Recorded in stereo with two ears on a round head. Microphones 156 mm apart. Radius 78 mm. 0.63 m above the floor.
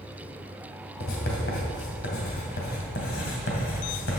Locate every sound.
1.0 s writing: 60° left (ahead or behind), 2.5 m